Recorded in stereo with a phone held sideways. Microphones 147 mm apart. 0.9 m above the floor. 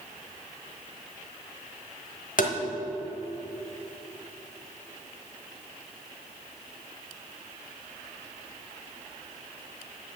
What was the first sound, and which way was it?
Tapping, 65° left (ahead or behind).